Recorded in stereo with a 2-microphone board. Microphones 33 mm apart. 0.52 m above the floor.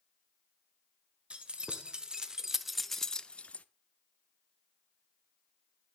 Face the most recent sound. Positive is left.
turn(degrees=45)  # may be behind; listen again after turning